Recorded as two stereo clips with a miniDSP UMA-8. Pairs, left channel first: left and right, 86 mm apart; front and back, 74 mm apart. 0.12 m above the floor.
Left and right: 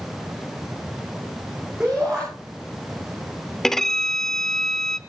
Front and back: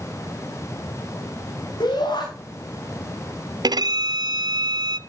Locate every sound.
1.8 s a shout: 5° right, 7 m
3.6 s a violin: 175° left, 0.6 m